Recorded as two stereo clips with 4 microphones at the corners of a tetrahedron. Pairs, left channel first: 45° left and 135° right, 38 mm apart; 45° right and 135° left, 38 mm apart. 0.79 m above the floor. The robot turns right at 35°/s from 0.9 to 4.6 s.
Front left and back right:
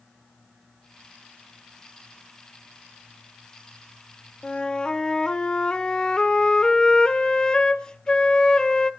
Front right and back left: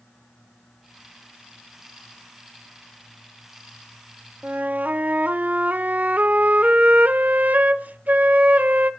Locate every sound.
4.4 s a flute: 100° left, 0.6 m; by 8.9 s 105° left, 0.6 m